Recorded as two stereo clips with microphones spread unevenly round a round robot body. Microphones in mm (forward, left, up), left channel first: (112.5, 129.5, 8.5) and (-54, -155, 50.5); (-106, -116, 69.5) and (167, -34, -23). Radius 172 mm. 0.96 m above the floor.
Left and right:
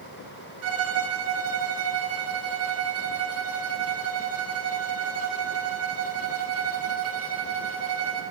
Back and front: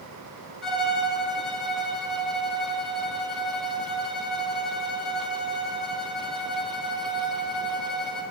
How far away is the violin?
About 3 m.